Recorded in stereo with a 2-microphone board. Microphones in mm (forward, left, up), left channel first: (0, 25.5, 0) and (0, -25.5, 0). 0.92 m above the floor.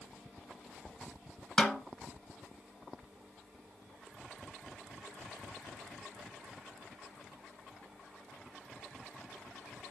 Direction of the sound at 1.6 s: 15° left (ahead or behind).